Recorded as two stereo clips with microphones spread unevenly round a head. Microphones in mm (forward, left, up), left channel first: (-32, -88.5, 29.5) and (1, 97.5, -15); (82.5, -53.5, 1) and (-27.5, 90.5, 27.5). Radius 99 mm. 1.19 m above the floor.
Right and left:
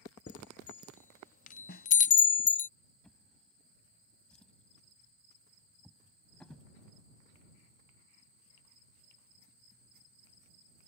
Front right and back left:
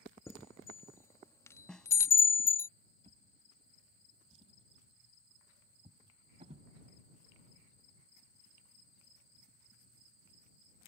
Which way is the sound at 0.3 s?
135° right.